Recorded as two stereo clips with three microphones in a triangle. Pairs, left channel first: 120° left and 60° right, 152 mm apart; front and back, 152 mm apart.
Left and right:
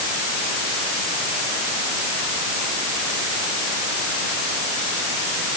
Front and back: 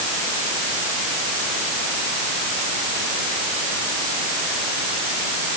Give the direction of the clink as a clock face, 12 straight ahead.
No clink in this recording.